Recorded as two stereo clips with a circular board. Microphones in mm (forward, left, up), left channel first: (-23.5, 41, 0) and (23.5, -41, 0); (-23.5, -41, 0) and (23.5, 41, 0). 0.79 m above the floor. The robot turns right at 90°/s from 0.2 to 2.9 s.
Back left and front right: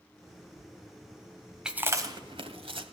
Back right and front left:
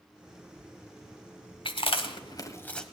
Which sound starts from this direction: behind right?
Chewing, at 1.6 s.